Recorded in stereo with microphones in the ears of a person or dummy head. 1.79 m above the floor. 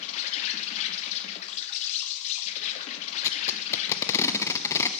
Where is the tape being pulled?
10° left (ahead or behind), 0.7 m.